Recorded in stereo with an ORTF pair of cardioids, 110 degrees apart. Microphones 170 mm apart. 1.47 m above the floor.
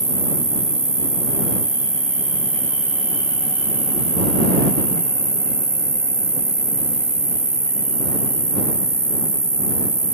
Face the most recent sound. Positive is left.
turn(degrees=-15)